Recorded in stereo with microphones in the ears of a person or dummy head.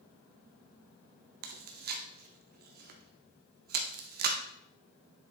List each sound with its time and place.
1.4 s chewing: 50° right (ahead or behind), 1.2 m